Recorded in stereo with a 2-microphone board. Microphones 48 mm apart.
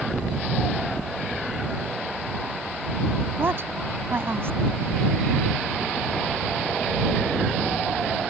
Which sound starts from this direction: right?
A woman speaking, at 3.4 s.